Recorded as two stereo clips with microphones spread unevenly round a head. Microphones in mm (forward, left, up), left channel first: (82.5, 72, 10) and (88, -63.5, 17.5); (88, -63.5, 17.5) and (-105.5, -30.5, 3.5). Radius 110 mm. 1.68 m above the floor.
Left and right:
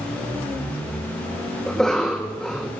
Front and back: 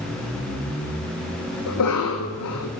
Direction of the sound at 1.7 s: 5° left.